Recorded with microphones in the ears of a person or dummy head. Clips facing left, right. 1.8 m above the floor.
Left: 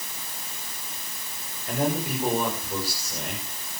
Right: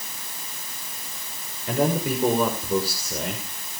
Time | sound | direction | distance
1.7 | a man speaking | 85° right | 6.5 m